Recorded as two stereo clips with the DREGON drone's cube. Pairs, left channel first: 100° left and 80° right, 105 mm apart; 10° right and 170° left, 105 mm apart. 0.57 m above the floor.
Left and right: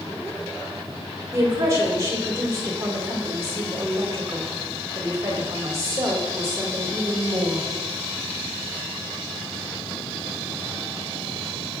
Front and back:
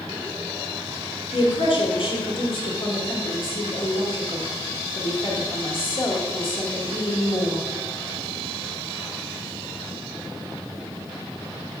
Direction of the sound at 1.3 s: 25° right.